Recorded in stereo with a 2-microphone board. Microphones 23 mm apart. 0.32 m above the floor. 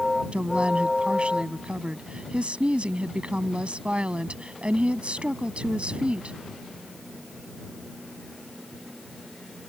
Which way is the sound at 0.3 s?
60° right (ahead or behind).